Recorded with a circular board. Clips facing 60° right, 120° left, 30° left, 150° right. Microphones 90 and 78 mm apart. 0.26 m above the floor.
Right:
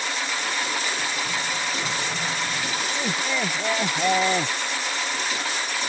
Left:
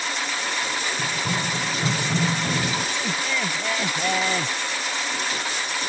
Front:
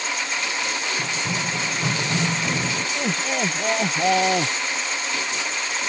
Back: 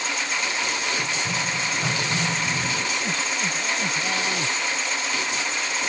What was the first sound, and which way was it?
Running footsteps, 75° left.